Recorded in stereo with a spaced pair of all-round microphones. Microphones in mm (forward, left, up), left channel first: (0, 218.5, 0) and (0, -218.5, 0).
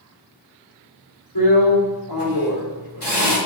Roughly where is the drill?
Left.